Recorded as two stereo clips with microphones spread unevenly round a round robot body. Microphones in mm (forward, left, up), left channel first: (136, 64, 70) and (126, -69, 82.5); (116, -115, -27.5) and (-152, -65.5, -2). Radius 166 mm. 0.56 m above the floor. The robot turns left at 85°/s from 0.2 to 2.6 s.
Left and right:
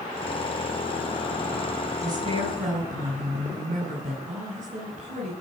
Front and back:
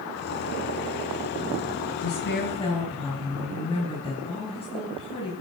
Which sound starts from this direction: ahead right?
A woman speaking, at 2.0 s.